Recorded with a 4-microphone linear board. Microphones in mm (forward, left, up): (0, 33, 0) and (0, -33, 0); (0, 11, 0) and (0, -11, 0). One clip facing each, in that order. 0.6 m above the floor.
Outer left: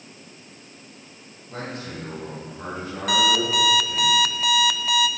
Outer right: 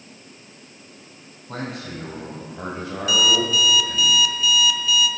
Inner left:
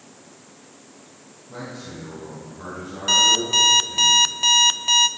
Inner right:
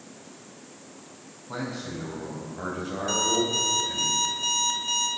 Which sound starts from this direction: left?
An alarm clock, at 3.1 s.